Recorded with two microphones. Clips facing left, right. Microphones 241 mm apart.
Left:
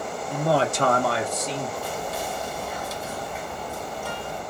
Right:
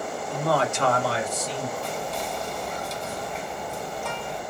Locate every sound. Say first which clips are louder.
0.3 s a man speaking: left 2 dB; 10° left (ahead or behind), 0.7 m; by 1.7 s 75° left (ahead or behind), 1.3 m
1.8 s whispering: even; 5° left (ahead or behind), 0.9 m